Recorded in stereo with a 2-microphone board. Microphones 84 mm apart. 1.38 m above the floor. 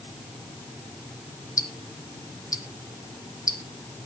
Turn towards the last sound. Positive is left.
turn(degrees=45)  # may be behind; listen again after turning